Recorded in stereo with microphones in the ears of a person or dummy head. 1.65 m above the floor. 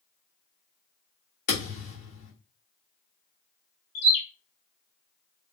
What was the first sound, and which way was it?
A thud, 50° left (ahead or behind).